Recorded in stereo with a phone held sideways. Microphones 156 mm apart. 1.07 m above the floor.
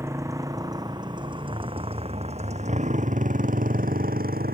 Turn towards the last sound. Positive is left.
turn(degrees=-75)  # may be behind; listen again after turning